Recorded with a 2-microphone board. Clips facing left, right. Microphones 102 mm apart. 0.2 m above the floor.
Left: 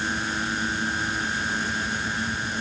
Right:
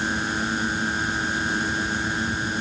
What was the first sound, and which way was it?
Only background noise.